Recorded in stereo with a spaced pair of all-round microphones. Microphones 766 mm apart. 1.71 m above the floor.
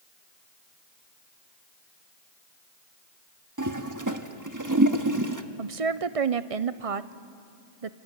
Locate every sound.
3.6 s a toilet flushing: 25° right (ahead or behind), 1.2 m
5.6 s a woman speaking: 45° right (ahead or behind), 0.8 m